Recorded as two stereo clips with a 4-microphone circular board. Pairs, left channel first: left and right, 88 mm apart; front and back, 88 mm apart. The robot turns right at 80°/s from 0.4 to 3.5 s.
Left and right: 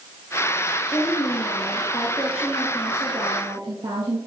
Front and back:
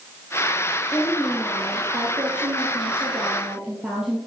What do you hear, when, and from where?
0.9 s a woman speaking: 55° left, 2.5 m; by 4.2 s 100° right, 2.5 m